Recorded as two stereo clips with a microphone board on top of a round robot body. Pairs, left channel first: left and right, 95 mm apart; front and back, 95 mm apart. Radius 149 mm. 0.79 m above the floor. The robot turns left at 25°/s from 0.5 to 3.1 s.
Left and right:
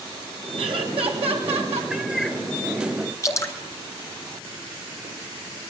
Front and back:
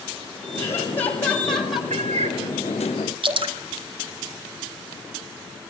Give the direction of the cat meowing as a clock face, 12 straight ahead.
6 o'clock.